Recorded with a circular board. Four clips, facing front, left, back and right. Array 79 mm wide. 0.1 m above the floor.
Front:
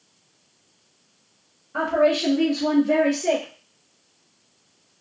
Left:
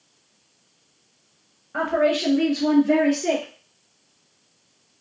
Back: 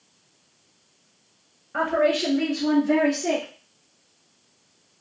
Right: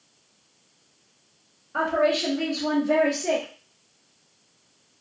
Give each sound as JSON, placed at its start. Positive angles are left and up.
{"t": 1.7, "sound": "a woman speaking", "azimuth_deg": 130, "distance_m": 1.5}